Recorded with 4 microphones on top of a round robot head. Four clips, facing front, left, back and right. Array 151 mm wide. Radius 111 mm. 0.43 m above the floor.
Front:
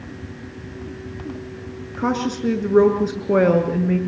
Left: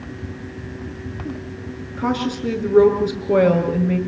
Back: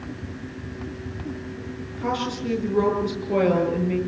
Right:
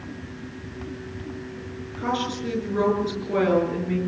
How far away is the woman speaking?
About 7 m.